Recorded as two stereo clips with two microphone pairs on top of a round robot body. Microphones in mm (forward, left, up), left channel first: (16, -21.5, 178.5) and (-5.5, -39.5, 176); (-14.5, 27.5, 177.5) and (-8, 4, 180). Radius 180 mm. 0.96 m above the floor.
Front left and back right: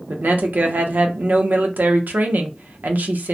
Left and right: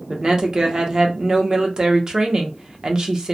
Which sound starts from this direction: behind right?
A woman speaking, at 0.1 s.